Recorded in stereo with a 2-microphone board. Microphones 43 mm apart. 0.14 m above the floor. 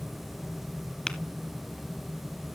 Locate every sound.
1.1 s tapping: 20° left (ahead or behind), 0.8 m